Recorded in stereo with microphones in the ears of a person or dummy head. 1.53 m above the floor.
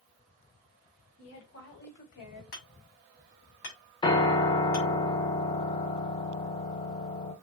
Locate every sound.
1.2 s a woman speaking: 75° left (ahead or behind), 1.6 m; by 2.4 s 45° left (ahead or behind), 1.5 m
2.5 s hammering: 60° left (ahead or behind), 2 m
4.0 s a piano: 25° left (ahead or behind), 0.5 m